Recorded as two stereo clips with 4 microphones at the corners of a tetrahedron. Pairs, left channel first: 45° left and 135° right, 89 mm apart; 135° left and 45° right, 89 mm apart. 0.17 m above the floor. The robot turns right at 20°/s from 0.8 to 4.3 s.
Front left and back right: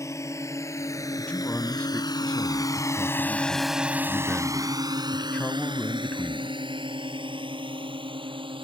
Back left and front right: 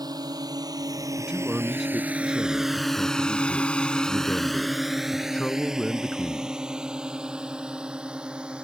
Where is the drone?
10° right; by 8.7 s 125° right.